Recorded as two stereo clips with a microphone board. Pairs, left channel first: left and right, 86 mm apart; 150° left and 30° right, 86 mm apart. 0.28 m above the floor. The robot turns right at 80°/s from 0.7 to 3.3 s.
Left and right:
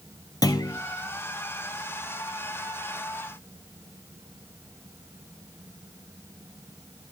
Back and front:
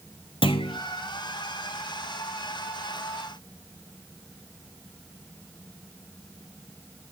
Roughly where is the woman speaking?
I don't hear a woman speaking.